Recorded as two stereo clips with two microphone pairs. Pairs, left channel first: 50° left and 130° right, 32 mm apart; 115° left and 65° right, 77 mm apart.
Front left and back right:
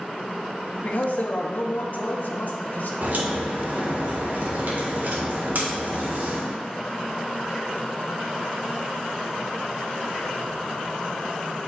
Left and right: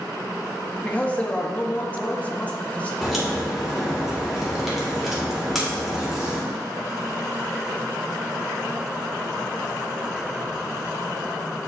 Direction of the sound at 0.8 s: 50° left.